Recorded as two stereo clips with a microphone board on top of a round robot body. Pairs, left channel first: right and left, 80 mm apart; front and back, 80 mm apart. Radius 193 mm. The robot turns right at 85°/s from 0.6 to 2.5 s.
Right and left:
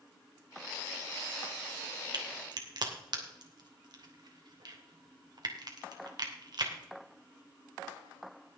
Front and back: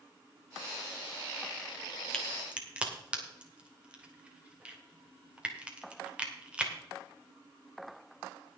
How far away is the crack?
About 2.5 m.